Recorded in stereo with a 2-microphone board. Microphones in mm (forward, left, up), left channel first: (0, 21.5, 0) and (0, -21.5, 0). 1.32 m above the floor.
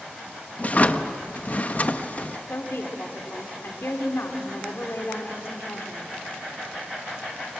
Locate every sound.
0.6 s a drawer: 35° left (ahead or behind), 1.0 m
2.5 s a woman speaking: 70° left (ahead or behind), 3 m